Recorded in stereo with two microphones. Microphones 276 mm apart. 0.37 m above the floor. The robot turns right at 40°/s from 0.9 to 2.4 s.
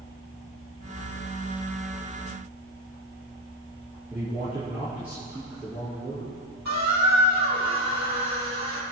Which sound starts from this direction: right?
A squeak, at 6.7 s.